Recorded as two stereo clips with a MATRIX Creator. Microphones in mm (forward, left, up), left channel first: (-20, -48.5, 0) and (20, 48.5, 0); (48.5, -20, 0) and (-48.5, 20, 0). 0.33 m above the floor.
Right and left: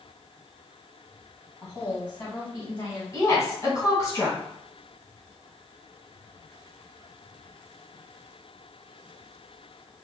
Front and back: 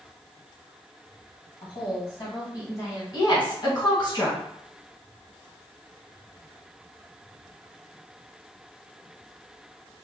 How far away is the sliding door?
No sliding door in this recording.